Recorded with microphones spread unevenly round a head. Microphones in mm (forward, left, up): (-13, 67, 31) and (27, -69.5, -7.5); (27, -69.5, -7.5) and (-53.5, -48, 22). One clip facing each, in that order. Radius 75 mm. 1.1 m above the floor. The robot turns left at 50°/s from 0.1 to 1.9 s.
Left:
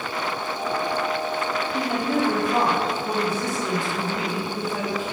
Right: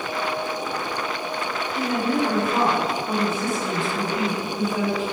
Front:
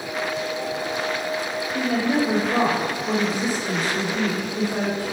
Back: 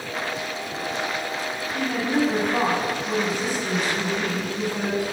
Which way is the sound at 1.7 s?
55° left.